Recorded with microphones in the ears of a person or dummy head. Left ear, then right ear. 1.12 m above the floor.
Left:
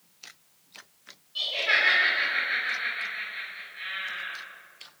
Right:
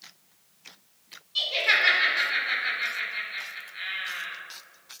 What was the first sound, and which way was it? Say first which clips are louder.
Laughter: right 2 dB; 30° right (ahead or behind).